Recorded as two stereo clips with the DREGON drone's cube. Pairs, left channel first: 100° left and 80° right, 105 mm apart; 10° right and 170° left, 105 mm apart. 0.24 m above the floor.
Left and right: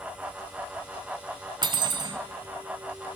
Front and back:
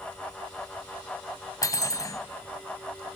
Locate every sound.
1.6 s cutlery clinking: 55° right, 1.2 m